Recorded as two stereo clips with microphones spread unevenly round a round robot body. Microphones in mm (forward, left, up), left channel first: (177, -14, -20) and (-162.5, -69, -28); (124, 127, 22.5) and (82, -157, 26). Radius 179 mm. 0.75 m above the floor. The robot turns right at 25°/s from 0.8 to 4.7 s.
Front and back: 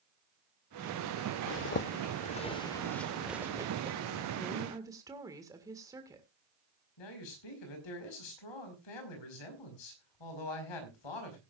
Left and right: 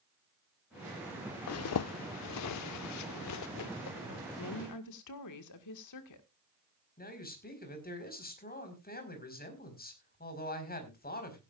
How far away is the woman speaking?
About 1.7 m.